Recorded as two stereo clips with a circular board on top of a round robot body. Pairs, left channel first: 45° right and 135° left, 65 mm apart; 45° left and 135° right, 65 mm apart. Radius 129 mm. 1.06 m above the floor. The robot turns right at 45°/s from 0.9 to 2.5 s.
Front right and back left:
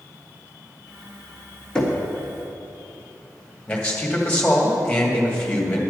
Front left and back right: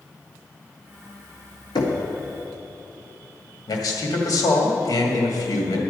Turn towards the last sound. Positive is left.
turn(degrees=30)